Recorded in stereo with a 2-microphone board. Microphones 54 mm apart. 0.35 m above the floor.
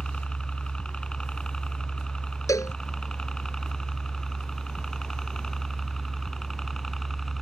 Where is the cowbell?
80° left.